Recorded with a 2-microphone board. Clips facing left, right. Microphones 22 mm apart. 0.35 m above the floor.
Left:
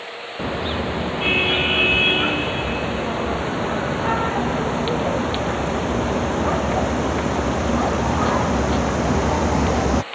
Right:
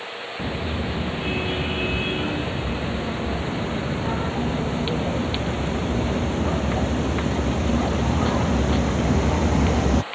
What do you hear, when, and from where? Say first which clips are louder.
0.4 s a car horn: left 5 dB; 40° left (ahead or behind); by 10.1 s 25° left (ahead or behind)